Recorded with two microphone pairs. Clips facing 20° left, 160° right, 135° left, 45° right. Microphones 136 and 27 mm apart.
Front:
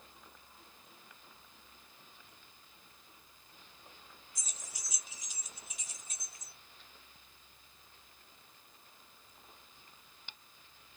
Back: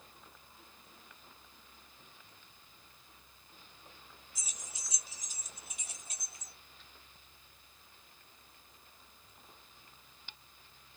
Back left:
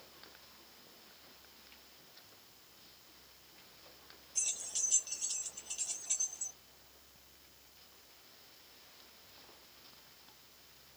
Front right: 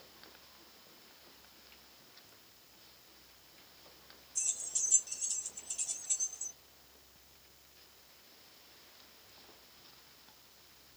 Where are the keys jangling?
115° left, 1.0 m; by 6.5 s 160° right, 2 m.